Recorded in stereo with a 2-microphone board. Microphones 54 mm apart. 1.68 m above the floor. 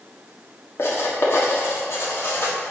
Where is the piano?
No piano in this recording.